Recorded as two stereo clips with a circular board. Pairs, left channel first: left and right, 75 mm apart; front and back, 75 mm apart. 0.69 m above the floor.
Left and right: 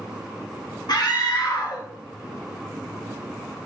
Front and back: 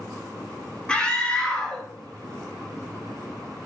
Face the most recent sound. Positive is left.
turn(degrees=75)